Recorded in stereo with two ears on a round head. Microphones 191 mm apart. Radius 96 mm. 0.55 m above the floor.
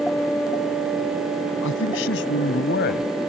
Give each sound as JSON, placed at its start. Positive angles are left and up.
{"t": 1.6, "sound": "a man speaking", "side_deg": 70}